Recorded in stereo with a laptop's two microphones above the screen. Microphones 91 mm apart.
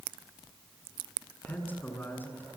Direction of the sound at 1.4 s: 20° left (ahead or behind).